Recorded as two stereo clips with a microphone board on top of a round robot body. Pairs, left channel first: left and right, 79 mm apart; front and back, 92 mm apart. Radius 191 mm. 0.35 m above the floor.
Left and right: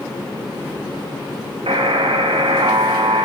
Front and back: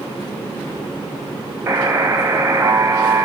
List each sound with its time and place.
1.7 s a buzzer: 115° right, 0.6 m